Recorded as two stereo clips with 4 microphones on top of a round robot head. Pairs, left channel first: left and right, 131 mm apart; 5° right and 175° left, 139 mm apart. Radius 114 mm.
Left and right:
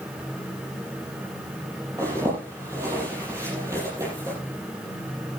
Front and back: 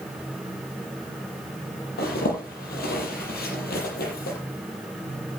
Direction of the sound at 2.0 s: 15° right.